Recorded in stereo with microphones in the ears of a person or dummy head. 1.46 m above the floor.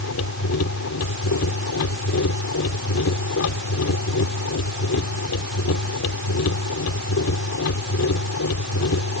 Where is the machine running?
85° left.